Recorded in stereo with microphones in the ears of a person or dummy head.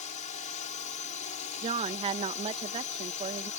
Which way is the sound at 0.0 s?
30° left (ahead or behind).